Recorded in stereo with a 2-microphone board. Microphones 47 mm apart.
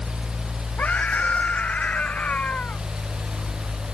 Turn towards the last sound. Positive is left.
turn(degrees=25)  # may be behind; listen again after turning